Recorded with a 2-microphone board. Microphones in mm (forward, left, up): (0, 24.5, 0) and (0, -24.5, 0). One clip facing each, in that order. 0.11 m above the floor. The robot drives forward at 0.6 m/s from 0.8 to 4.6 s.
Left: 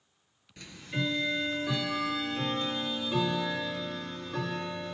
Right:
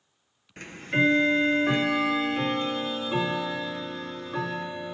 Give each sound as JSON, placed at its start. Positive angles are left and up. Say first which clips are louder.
{"t": 0.6, "sound": "ticking", "louder": "right 10 dB", "side_deg": -45, "distance_m": 0.8}